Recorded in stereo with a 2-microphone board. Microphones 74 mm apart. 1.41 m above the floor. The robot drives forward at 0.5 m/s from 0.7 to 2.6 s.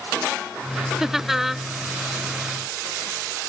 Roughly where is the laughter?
Centre.